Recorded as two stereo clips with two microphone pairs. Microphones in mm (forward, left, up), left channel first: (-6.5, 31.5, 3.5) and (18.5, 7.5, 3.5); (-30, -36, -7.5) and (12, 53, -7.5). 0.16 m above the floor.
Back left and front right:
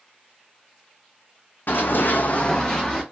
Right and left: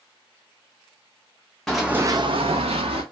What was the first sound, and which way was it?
Running footsteps, 160° left.